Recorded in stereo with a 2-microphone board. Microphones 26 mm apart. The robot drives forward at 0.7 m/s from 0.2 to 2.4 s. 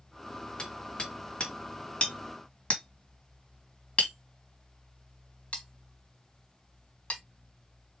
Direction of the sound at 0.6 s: 35° left (ahead or behind).